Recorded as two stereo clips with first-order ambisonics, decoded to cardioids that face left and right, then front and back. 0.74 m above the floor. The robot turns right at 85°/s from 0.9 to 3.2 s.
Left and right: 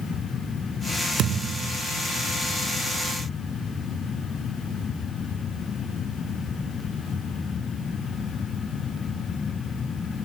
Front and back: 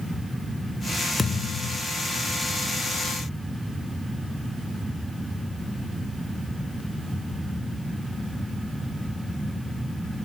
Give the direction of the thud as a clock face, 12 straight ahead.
2 o'clock.